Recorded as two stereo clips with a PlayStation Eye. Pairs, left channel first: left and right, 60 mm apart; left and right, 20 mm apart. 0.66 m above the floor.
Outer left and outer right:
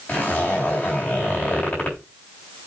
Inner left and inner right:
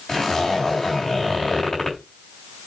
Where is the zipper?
30° left (ahead or behind), 3.5 m.